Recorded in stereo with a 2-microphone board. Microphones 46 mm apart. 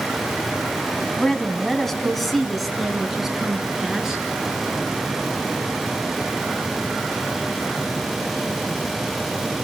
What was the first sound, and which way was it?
A woman speaking, 20° left (ahead or behind).